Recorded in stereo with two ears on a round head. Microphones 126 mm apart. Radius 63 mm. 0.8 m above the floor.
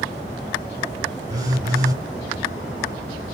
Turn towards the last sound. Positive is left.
turn(degrees=-30)  # may be behind; listen again after turning